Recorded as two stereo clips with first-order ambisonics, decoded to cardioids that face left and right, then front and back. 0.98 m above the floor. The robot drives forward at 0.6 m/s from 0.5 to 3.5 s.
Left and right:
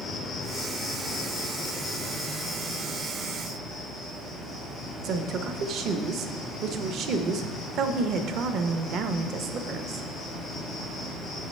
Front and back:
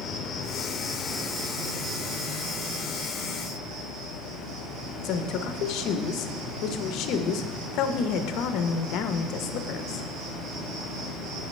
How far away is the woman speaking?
About 0.5 m.